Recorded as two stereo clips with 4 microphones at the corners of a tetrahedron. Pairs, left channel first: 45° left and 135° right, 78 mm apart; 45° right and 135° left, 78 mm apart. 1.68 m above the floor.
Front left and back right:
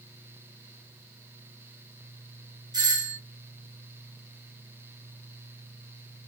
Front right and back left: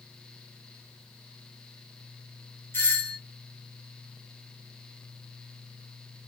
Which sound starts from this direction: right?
A doorbell, at 2.7 s.